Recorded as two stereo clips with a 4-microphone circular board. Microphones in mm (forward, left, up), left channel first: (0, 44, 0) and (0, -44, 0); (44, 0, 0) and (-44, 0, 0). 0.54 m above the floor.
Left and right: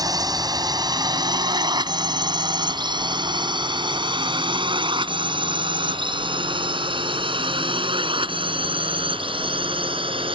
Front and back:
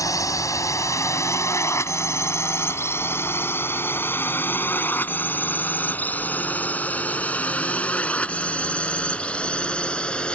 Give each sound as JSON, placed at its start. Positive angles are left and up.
{"t": 0.0, "sound": "a drone", "azimuth_deg": -50}